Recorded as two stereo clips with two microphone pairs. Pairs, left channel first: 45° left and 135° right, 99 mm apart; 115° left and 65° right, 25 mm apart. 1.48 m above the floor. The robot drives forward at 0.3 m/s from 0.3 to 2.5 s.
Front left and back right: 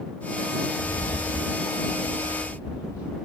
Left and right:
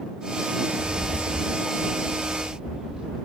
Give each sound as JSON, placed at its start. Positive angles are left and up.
{"t": 0.7, "sound": "a rattle", "azimuth_deg": -10, "distance_m": 3.0}